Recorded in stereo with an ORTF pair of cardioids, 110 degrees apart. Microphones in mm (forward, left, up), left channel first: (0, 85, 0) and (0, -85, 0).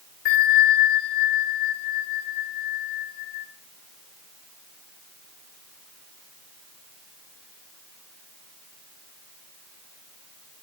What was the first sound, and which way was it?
A bell, 60° left.